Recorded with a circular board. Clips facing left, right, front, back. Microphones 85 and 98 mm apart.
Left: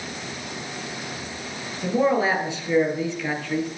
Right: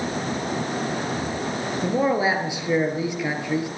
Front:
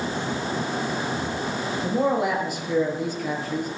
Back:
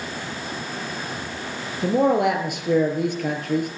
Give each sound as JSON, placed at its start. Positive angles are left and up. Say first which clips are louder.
{"t": 1.8, "sound": "a man speaking", "louder": "left 1 dB, back 5 dB", "azimuth_deg": -165, "distance_m": 3.0}